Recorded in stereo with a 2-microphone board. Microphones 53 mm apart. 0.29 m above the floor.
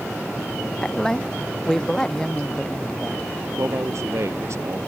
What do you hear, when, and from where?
0.8 s a woman speaking: 10° left (ahead or behind); by 3.3 s 15° left (ahead or behind)
3.6 s a man speaking: 65° right (ahead or behind)